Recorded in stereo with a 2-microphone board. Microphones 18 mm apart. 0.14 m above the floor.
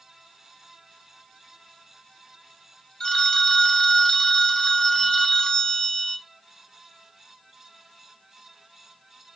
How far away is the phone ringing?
About 1.1 m.